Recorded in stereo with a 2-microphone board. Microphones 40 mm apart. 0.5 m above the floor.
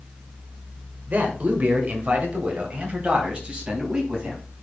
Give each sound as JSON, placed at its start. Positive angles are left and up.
{"t": 1.1, "sound": "a man speaking", "side_deg": -45, "distance_m": 1.3}